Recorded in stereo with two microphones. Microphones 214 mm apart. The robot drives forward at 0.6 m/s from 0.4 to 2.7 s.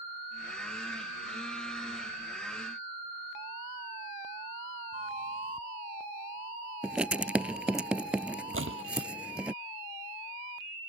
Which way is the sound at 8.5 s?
70° right (ahead or behind).